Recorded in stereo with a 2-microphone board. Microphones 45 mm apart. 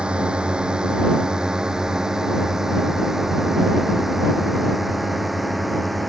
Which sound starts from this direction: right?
A drone, at 0.0 s.